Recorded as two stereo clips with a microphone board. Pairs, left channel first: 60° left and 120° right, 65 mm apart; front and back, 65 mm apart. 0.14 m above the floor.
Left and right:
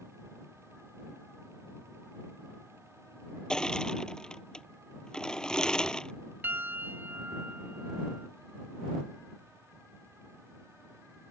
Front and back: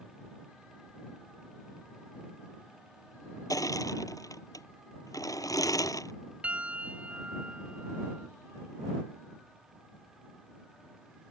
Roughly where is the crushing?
Ahead.